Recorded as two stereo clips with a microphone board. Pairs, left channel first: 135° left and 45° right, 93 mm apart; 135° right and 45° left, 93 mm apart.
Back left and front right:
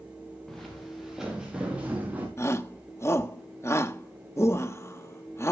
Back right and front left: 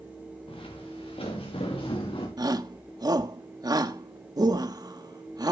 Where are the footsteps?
140° right, 5.5 m; by 2.3 s 115° right, 5.5 m.